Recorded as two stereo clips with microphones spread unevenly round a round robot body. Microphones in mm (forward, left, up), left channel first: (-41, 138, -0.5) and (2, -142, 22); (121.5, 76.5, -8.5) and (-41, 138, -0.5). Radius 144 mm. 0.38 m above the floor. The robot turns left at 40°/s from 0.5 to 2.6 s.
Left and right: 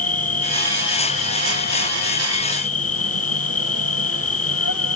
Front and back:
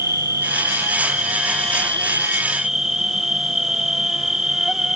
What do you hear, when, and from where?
0.0 s an insect: 155° left; by 5.0 s 70° left